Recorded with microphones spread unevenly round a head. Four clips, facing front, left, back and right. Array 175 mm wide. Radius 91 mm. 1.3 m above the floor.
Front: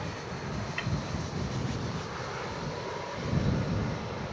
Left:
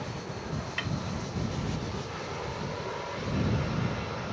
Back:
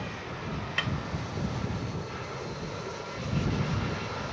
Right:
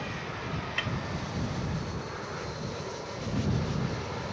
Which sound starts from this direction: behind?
A snare drum, at 0.8 s.